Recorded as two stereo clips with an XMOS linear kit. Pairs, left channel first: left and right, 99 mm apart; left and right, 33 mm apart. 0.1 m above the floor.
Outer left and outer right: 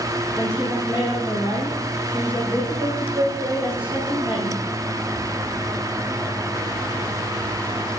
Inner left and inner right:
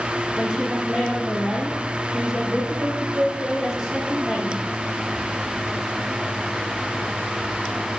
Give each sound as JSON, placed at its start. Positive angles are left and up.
{"t": 0.4, "sound": "a woman speaking", "side_deg": -15, "distance_m": 5.0}